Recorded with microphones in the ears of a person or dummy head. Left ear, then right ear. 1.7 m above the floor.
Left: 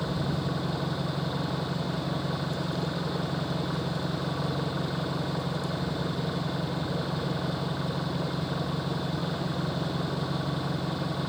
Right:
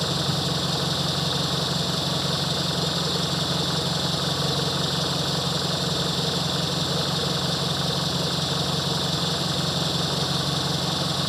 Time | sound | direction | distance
0.0 | an engine running | 75° right (ahead or behind) | ?